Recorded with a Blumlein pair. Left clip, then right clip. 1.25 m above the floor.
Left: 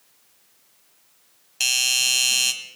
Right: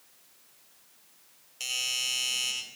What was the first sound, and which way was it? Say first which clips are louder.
A doorbell: left 10 dB; 50° left.